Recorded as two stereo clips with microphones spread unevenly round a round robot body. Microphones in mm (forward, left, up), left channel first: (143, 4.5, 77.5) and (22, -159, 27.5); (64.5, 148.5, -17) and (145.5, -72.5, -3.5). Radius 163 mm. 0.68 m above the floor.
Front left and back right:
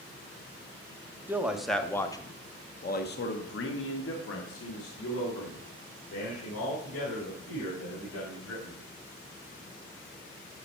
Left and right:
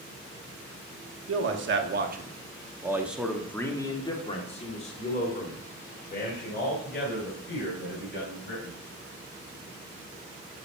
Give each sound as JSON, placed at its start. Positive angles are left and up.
{"t": 1.3, "sound": "a man speaking", "azimuth_deg": -60, "distance_m": 1.6}